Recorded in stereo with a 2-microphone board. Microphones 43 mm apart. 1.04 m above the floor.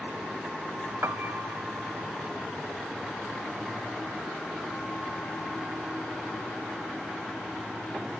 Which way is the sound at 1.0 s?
65° right (ahead or behind).